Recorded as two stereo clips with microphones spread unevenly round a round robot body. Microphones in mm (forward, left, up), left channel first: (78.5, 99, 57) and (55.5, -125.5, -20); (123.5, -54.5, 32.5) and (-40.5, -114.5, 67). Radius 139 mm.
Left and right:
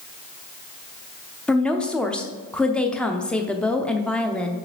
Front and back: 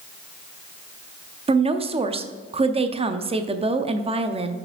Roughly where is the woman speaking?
Behind right.